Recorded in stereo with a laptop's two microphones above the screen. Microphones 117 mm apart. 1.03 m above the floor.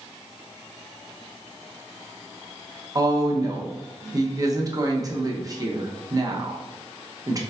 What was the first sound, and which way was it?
A woman speaking, 30° right (ahead or behind).